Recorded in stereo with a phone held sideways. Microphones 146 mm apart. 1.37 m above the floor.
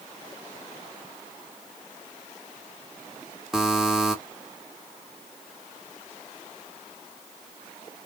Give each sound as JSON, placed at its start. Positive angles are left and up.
{"t": 3.5, "sound": "a buzzer", "side_deg": -5, "distance_m": 1.1}